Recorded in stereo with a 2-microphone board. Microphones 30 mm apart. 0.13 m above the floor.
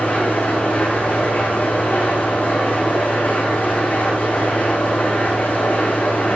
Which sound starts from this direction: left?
An engine running, at 0.0 s.